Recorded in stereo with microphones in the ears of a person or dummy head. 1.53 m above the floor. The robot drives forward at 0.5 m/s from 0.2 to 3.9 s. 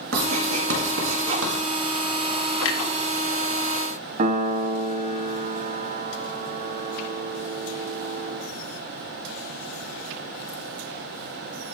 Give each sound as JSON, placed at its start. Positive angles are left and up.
{"t": 0.1, "sound": "writing", "side_deg": -60, "distance_m": 2.5}
{"t": 2.6, "sound": "a clunk", "side_deg": 70, "distance_m": 0.9}
{"t": 4.2, "sound": "a piano", "side_deg": -40, "distance_m": 0.7}